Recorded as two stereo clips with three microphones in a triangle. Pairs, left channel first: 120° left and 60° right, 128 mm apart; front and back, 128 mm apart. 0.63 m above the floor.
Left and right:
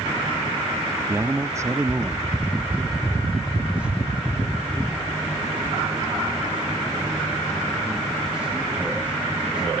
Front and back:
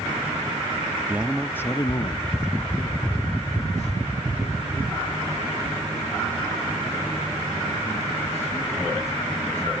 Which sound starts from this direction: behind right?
A man speaking, at 1.1 s.